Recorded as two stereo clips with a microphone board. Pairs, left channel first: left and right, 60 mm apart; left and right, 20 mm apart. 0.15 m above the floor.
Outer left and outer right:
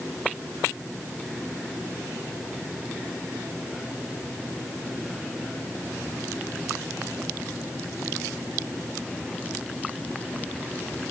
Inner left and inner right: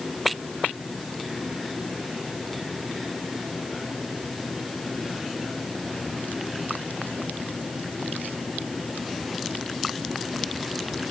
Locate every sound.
Only background noise.